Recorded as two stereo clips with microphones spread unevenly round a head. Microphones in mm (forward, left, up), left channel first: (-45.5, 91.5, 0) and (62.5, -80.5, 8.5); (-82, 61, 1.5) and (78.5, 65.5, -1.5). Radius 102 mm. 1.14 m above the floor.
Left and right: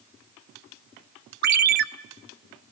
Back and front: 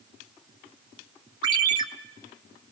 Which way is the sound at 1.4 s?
55° right.